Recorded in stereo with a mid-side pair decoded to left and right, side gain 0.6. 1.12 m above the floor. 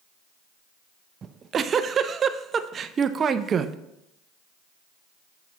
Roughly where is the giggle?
Ahead right.